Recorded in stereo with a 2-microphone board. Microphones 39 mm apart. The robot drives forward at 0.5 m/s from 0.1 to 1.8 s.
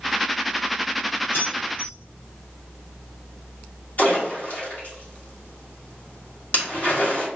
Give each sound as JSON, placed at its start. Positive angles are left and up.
{"t": 1.3, "sound": "keys jangling", "side_deg": 70, "distance_m": 1.7}
{"t": 4.0, "sound": "a splash", "side_deg": 45, "distance_m": 1.5}